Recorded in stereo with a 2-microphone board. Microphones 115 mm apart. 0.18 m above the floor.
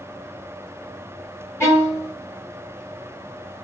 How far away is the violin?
About 1.7 m.